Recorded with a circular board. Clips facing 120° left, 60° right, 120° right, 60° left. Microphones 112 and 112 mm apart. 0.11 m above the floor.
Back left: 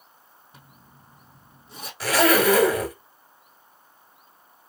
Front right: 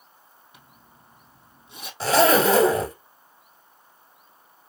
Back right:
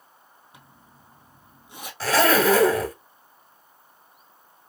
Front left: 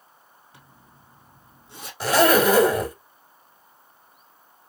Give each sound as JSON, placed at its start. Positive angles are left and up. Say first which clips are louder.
{"t": 0.5, "sound": "a zipper", "louder": "back left 3 dB, back right 1 dB", "azimuth_deg": 170, "distance_m": 2.5}
{"t": 2.0, "sound": "a zipper", "louder": "front right 2 dB, front left 2 dB", "azimuth_deg": -10, "distance_m": 1.0}